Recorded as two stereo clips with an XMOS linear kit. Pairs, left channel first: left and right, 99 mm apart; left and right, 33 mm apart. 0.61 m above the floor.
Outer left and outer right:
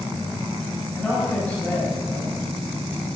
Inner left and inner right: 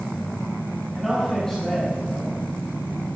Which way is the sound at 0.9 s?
10° left (ahead or behind).